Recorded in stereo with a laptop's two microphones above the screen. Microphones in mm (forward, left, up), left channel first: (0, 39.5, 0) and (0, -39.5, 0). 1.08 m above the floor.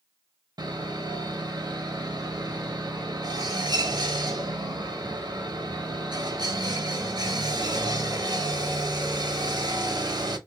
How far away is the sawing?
About 1.1 m.